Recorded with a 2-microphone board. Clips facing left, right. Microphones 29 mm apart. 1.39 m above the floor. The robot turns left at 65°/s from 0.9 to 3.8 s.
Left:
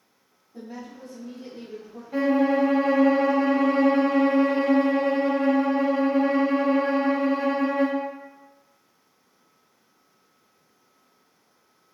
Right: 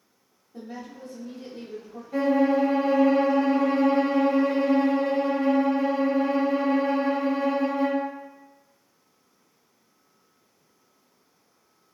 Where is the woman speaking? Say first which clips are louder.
Even; 70° right, 0.9 m; by 2.0 s 145° right, 0.9 m.